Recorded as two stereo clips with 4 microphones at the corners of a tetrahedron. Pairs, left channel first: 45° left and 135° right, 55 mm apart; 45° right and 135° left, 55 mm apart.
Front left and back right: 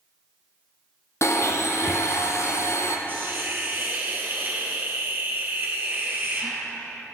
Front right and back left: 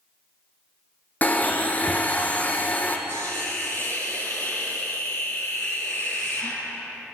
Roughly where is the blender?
Ahead.